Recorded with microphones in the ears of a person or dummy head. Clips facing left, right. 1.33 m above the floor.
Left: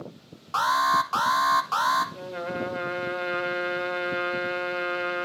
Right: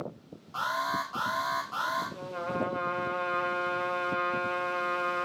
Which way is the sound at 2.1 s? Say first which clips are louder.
Left 2 dB; 35° left (ahead or behind).